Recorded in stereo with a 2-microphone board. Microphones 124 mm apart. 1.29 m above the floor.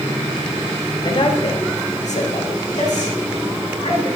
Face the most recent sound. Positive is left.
turn(degrees=65)  # may be behind; listen again after turning